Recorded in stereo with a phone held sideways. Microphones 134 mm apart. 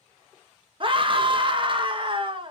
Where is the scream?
40° right (ahead or behind), 0.8 m.